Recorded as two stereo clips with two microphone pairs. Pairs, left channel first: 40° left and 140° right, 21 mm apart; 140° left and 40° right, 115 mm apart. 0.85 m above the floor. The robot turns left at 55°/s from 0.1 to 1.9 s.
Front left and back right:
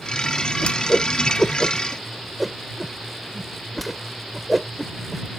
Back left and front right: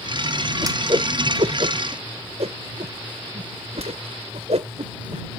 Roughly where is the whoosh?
Ahead.